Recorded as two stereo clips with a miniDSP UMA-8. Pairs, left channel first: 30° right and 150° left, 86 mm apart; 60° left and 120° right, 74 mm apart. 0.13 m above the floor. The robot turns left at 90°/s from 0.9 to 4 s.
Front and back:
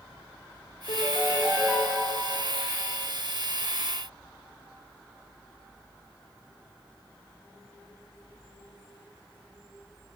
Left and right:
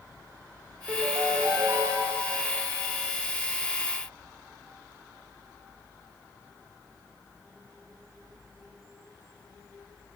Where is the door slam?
No door slam in this recording.